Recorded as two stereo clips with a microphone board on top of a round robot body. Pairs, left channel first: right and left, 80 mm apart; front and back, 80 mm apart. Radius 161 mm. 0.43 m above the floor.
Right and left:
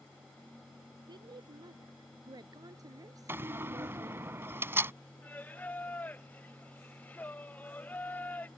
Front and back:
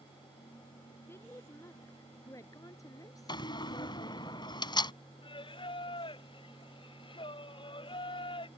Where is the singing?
20° right.